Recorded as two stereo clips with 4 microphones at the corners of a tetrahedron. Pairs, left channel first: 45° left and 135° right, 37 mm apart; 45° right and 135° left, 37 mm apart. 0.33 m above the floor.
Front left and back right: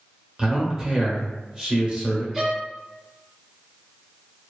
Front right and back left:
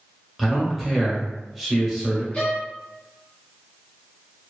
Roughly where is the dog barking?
No dog barking in this recording.